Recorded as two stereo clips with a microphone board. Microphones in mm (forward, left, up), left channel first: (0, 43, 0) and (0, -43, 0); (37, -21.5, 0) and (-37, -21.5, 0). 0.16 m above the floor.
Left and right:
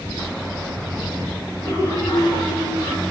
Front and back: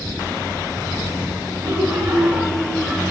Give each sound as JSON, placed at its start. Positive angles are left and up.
{"t": 1.6, "sound": "laughter", "azimuth_deg": 135, "distance_m": 1.9}